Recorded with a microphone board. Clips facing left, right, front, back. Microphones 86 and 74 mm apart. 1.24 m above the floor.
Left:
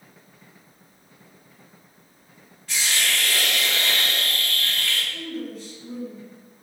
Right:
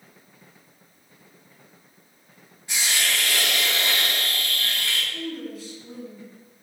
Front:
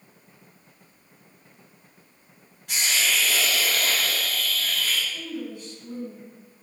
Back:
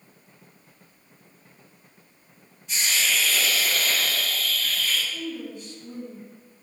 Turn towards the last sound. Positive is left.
turn(degrees=-175)